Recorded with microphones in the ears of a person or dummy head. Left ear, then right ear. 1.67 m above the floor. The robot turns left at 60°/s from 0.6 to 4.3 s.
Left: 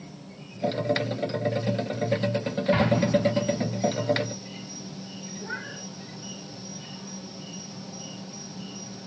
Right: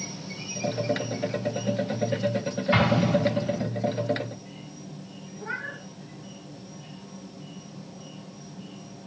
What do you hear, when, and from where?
0.0 s an insect: 85° right, 1.1 m; by 9.1 s 55° left, 1.1 m
2.7 s an explosion: 20° right (ahead or behind), 2.5 m; by 3.7 s 75° right (ahead or behind), 2.5 m
5.4 s a cat meowing: 30° right (ahead or behind), 5 m